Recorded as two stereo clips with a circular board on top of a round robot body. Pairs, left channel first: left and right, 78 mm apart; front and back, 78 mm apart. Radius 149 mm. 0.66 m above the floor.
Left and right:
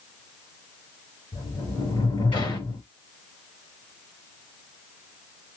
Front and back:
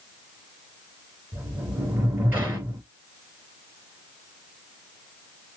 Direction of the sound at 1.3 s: 110° left.